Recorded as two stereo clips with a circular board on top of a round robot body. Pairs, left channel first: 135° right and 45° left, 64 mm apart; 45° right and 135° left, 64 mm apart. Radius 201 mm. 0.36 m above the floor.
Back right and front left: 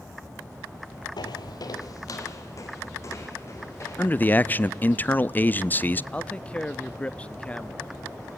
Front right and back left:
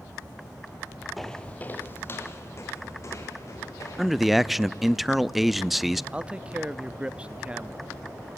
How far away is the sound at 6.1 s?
About 0.8 m.